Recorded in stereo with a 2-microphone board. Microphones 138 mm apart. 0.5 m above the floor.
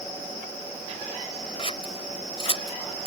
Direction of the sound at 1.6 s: 45° left (ahead or behind).